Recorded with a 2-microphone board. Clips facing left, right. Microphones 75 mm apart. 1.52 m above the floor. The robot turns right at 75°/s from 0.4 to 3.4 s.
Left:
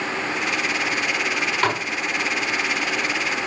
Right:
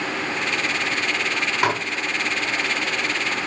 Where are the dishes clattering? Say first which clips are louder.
Right 1 dB; 10° right (ahead or behind), 2 m; by 1.8 s 25° right (ahead or behind), 2 m.